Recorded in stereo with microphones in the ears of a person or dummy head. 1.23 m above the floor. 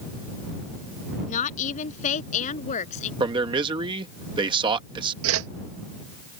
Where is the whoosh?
70° right (ahead or behind).